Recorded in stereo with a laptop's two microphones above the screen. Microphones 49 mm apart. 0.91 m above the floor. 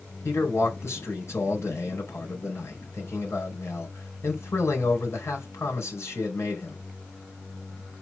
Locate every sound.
0.2 s a man speaking: 65° left (ahead or behind), 3.5 m